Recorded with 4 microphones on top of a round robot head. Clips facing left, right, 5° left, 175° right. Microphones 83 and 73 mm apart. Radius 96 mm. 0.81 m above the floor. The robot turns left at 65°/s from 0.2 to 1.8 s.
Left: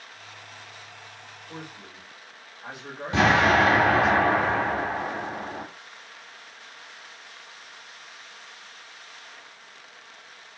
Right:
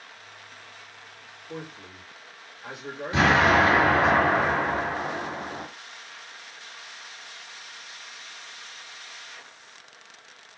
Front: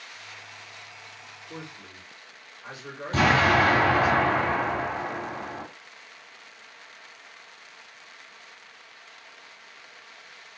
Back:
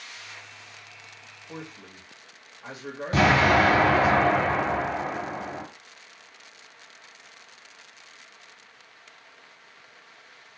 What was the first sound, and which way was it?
A man speaking, straight behind.